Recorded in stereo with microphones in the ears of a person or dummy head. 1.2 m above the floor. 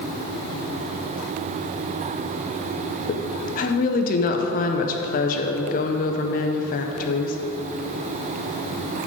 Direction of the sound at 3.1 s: 35° left (ahead or behind).